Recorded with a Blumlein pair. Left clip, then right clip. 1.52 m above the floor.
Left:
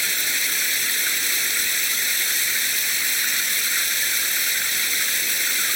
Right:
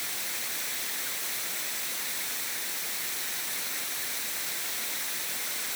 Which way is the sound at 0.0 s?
55° left.